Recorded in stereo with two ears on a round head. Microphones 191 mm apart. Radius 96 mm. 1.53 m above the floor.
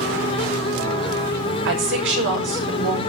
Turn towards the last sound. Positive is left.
turn(degrees=-60)  # may be behind; listen again after turning